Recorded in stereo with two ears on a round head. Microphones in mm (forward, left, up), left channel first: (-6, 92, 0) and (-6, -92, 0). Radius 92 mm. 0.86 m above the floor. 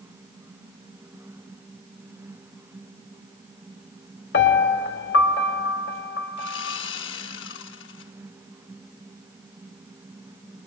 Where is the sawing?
65° left (ahead or behind), 3.5 m.